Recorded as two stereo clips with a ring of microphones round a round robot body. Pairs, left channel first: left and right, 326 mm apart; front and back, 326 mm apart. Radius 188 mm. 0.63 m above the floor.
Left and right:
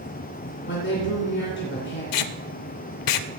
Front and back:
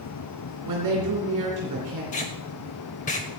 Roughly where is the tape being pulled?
Left.